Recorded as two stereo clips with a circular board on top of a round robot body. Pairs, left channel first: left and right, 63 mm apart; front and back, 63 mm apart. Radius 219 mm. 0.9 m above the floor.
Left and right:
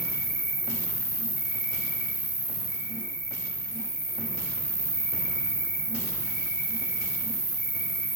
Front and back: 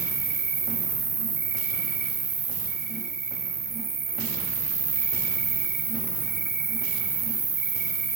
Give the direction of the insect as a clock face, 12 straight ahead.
9 o'clock.